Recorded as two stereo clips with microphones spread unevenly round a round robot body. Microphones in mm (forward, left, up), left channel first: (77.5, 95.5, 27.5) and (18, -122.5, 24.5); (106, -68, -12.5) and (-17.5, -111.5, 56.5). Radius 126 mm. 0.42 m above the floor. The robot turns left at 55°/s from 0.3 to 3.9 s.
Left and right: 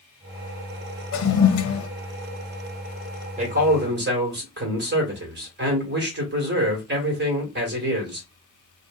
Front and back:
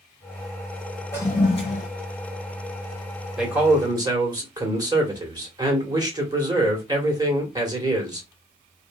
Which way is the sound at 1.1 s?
90° left.